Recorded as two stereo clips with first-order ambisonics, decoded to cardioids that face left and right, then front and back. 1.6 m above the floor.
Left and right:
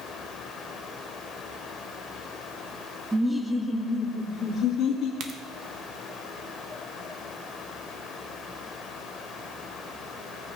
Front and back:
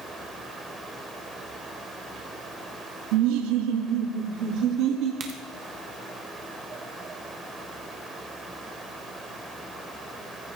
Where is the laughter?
170° right, 0.7 m; by 5.1 s 150° left, 1.7 m.